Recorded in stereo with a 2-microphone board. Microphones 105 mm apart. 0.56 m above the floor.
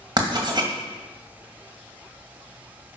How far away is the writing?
About 1.8 m.